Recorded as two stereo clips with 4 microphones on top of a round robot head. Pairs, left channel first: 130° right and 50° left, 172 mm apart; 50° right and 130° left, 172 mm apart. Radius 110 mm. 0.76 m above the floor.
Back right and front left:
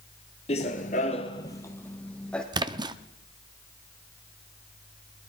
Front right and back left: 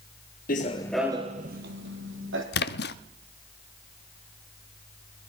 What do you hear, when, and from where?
0.5 s running footsteps: 80° right, 1.0 m; by 2.4 s 145° left, 2 m
2.5 s a splash: 20° right, 0.5 m